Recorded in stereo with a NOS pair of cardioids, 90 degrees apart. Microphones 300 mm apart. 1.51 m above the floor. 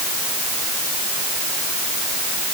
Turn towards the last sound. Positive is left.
No sound to turn to.